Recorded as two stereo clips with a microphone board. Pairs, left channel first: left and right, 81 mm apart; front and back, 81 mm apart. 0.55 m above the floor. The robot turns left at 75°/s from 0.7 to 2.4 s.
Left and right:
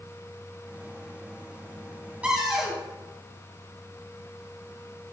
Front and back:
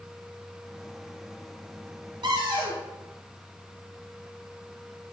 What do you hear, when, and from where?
2.2 s a cupboard door: 165° right, 2.5 m; by 2.8 s 175° right, 2.5 m